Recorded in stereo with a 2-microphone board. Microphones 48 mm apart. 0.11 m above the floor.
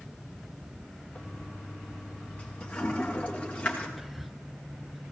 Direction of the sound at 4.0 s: Centre (ahead or behind).